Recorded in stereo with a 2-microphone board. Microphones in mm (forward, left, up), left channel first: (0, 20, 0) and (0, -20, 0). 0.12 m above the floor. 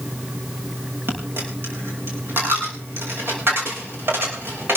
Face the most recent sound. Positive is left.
turn(degrees=-70)  # may be behind; listen again after turning